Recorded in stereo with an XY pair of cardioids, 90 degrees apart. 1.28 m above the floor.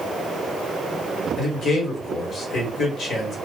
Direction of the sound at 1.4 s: 65° left.